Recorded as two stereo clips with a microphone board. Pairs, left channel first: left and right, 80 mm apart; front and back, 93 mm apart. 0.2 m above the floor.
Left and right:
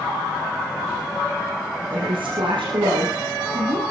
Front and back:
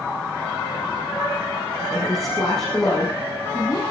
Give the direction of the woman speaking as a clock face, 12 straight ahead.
3 o'clock.